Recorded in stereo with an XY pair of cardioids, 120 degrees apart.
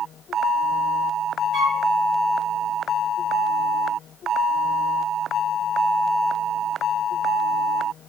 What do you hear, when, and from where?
1.5 s a flute: 60° right, 1.9 m